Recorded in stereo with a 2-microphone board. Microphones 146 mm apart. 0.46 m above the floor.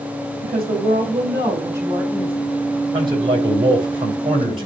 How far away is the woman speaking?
About 3 m.